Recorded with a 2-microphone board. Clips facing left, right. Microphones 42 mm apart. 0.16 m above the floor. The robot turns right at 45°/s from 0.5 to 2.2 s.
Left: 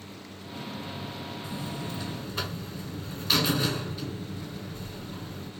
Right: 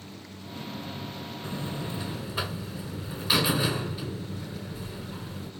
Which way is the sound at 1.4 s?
50° right.